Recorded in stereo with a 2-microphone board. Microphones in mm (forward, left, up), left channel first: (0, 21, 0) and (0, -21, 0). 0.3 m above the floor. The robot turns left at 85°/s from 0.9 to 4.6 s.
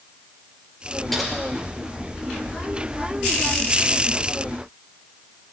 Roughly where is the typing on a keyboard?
Centre.